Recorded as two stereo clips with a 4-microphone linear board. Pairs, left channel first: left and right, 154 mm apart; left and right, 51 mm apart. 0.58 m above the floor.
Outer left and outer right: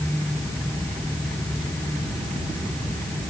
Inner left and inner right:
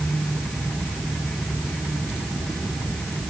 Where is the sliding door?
I don't hear a sliding door.